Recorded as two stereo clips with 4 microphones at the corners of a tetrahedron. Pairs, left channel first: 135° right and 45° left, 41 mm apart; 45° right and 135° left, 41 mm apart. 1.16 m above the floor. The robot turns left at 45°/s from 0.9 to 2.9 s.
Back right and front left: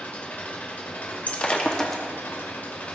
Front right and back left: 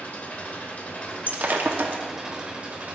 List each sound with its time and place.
0.0 s an engine running: 90° right, 1.7 m; by 3.0 s straight behind, 1.7 m
1.3 s breaking glass: straight behind, 0.9 m; by 2.0 s 145° left, 0.9 m